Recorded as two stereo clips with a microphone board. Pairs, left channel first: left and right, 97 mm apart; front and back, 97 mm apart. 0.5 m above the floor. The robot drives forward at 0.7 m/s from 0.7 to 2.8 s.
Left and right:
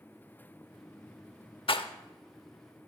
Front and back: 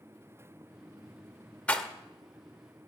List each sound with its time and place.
1.7 s a rattle: 75° left, 0.6 m; by 1.9 s 90° left, 0.6 m